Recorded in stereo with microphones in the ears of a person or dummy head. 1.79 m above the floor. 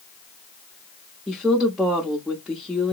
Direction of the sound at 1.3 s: Centre (ahead or behind).